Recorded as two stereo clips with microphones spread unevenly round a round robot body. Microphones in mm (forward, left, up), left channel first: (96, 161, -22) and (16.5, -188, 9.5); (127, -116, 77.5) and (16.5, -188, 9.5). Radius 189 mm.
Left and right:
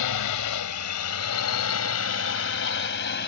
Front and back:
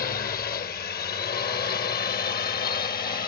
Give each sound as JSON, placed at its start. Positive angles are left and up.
{"t": 0.0, "sound": "a drone", "azimuth_deg": 65}